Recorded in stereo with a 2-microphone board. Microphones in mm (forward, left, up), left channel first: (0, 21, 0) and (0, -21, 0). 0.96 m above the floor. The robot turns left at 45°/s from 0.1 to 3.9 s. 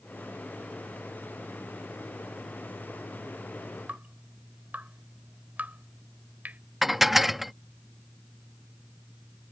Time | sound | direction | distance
3.9 | dripping | 45° right (ahead or behind) | ?
6.8 | dishes clattering | 5° right (ahead or behind) | ?